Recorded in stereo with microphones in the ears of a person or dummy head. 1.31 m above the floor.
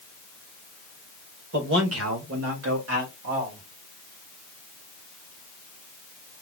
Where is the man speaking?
70° right (ahead or behind), 1.8 m; by 3.6 s 60° right (ahead or behind), 2.5 m.